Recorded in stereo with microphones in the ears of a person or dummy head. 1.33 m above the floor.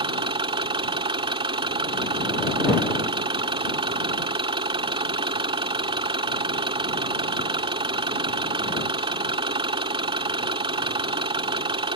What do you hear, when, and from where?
0.0 s an engine running: 25° right (ahead or behind)